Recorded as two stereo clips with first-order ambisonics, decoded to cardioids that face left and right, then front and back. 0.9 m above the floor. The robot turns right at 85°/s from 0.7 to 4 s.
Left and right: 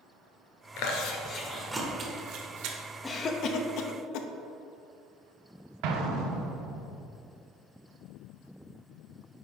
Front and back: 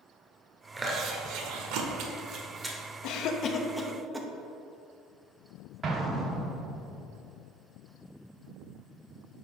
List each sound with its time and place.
0.8 s chewing: 100° left, 1.0 m; by 2.8 s 85° right, 1.0 m
3.0 s a cough: 15° left, 0.8 m; by 4.3 s 95° left, 0.8 m
5.8 s an explosion: 110° right, 0.9 m